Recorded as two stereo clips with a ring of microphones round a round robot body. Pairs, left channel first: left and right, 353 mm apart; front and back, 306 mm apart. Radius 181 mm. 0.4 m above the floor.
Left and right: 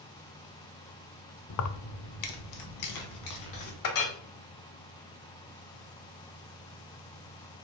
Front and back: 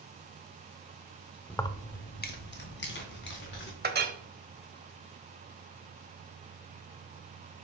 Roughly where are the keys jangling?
Left.